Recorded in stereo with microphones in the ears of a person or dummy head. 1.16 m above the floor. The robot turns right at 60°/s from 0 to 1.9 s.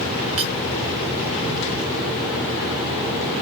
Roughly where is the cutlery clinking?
Right.